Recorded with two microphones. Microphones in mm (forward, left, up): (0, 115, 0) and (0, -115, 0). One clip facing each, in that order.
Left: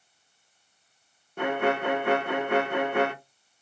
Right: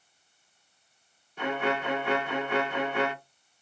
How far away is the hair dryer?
I don't hear a hair dryer.